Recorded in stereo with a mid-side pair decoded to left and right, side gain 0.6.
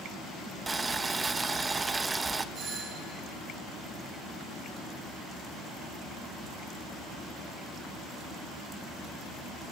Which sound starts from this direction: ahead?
Boiling, at 0.7 s.